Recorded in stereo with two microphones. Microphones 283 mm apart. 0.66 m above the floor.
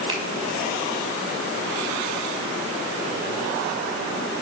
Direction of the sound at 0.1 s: 15° right (ahead or behind).